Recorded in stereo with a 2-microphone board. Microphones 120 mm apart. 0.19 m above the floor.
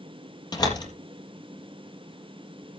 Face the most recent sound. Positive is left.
turn(degrees=35)  # may be behind; listen again after turning